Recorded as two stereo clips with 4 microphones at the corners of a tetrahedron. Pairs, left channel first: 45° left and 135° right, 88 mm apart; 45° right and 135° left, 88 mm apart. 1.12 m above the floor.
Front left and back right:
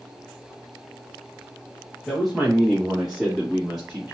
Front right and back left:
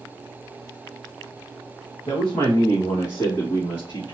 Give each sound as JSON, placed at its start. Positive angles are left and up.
{"t": 2.1, "sound": "a man speaking", "azimuth_deg": -40, "distance_m": 1.2}